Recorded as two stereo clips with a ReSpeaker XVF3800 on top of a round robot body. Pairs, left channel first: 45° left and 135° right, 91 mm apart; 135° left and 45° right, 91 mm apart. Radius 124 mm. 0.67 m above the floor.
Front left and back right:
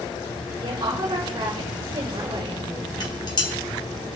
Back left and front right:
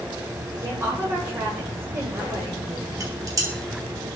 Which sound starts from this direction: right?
A woman speaking, at 0.6 s.